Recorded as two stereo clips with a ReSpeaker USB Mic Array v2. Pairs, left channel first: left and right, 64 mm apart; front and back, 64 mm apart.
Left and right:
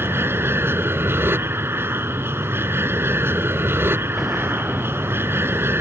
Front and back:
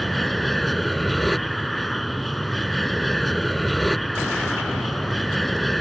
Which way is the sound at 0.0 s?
90° right.